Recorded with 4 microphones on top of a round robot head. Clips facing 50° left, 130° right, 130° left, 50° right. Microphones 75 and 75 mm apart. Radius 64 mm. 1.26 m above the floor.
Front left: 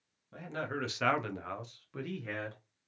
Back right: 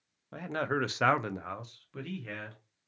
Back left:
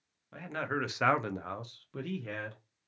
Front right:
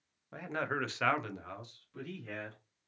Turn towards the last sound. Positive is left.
turn(degrees=115)